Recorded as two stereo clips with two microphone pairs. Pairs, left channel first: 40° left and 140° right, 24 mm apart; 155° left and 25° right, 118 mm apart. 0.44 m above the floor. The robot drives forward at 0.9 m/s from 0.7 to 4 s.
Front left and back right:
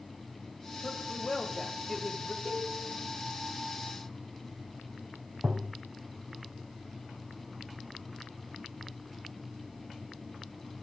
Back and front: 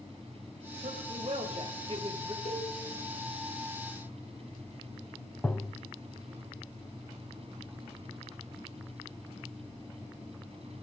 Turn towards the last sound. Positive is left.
turn(degrees=-130)